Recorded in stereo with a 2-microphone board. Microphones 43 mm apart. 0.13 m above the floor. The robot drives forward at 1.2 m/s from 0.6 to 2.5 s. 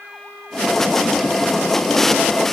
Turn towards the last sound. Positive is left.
No sound to turn to.